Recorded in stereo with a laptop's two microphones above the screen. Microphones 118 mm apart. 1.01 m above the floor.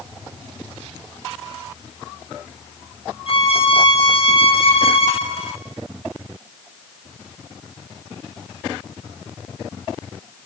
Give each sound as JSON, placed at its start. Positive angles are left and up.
{"t": 3.3, "sound": "a violin", "side_deg": 50, "distance_m": 2.0}